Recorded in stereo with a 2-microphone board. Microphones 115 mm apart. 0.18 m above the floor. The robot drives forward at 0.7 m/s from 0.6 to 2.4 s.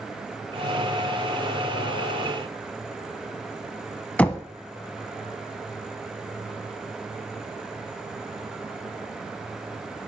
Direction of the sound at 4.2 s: 10° left (ahead or behind).